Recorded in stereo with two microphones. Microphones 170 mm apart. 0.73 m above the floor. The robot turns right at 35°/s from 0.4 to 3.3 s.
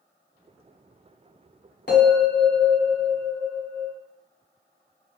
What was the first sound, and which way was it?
A bell, 75° left.